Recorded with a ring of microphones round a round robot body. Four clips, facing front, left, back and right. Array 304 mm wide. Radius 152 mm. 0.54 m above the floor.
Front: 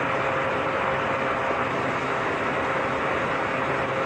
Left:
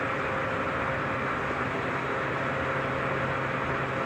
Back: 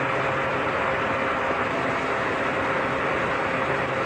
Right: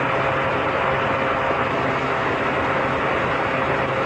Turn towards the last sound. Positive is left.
No sound to turn to.